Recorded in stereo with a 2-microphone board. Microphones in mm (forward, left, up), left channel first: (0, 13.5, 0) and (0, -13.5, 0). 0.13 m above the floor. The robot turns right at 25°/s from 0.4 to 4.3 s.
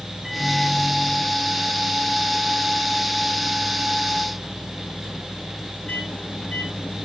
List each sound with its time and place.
0.2 s a microwave: 15° right, 2 m; by 7.0 s 85° left, 2 m